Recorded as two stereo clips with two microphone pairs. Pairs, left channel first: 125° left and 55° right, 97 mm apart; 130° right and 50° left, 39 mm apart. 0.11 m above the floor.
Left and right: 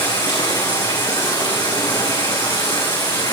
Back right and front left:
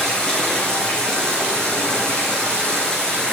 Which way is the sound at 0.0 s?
165° left.